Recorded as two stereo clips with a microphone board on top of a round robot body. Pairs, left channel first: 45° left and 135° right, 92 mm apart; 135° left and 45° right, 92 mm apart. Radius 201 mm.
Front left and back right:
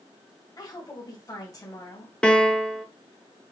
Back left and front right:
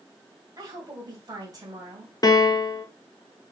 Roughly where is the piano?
Behind left.